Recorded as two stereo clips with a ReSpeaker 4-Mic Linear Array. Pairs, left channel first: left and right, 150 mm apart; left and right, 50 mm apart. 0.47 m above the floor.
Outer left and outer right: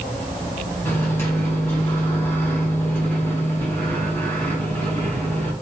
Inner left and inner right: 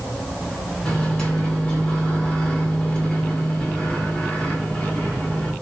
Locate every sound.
0.8 s a microwave: 15° left (ahead or behind), 2 m